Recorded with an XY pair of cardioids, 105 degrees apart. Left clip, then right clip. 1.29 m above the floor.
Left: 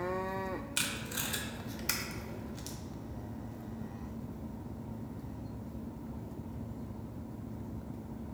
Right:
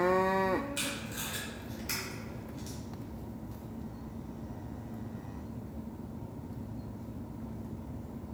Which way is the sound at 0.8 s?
55° left.